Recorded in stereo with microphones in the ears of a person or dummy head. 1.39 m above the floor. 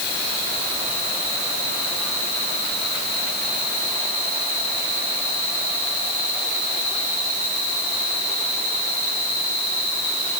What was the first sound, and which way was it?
Only background noise.